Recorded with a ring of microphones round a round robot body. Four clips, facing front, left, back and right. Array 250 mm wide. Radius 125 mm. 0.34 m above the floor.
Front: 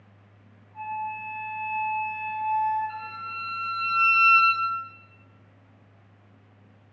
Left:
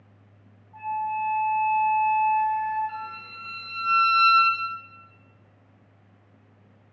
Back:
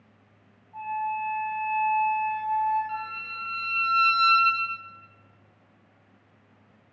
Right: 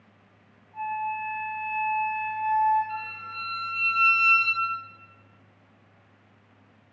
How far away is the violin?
About 1.7 m.